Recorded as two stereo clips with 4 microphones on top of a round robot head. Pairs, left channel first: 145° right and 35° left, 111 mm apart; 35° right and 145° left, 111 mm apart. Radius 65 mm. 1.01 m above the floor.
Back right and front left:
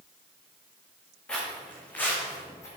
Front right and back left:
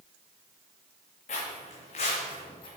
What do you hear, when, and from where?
1.3 s footsteps: 65° right, 3.5 m; by 2.7 s 80° right, 2 m